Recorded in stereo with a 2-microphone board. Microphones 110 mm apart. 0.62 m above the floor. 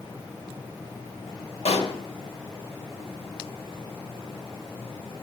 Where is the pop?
85° left, 1.1 m.